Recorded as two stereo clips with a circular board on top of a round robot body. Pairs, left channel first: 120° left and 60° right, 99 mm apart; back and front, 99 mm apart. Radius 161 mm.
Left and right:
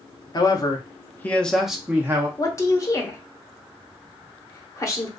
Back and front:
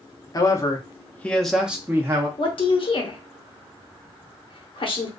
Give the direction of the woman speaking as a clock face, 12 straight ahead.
6 o'clock.